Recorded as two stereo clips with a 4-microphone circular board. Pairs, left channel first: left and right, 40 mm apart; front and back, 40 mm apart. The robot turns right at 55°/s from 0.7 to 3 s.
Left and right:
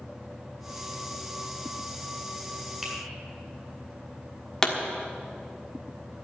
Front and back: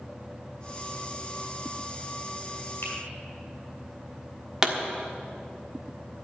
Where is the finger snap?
15° right, 4 m; by 2.9 s 5° right, 4 m.